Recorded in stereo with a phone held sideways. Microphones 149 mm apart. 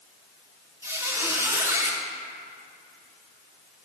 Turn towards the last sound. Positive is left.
turn(degrees=-20)  # may be behind; listen again after turning